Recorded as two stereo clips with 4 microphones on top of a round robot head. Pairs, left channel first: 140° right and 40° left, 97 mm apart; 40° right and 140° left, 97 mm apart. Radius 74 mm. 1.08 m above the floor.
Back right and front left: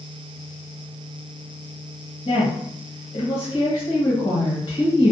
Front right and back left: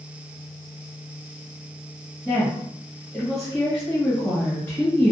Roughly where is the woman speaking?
Behind right.